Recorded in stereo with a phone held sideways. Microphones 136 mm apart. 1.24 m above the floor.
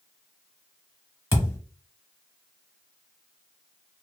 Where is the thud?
20° left (ahead or behind), 1.2 m.